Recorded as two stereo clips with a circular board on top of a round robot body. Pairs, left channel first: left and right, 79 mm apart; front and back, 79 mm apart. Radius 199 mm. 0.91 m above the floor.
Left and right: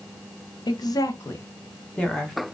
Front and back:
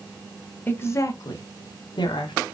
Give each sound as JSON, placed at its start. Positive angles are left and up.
{"t": 0.7, "sound": "a woman speaking", "azimuth_deg": 65, "distance_m": 0.8}